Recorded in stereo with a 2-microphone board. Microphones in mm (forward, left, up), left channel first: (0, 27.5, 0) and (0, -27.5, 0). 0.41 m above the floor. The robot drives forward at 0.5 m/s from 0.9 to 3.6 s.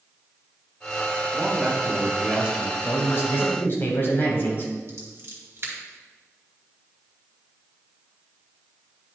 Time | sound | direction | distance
1.3 | a man speaking | 20° right (ahead or behind) | 1.3 m
2.8 | a man speaking | 45° left (ahead or behind) | 2.0 m
4.9 | scissors | 45° right (ahead or behind) | 2.5 m